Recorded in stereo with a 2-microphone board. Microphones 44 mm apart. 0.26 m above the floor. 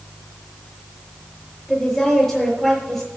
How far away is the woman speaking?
About 5 m.